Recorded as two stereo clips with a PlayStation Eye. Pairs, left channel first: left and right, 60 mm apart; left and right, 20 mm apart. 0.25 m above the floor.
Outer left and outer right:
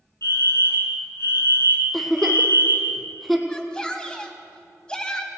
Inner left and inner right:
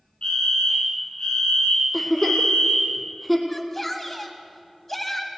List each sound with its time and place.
0.2 s a fire alarm: 55° left (ahead or behind), 5 m
1.9 s a giggle: 5° left (ahead or behind), 1.4 m
3.5 s a shout: 15° left (ahead or behind), 1.7 m